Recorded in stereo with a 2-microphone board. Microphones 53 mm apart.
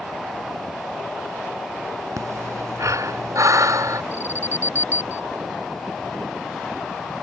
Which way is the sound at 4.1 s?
35° right (ahead or behind).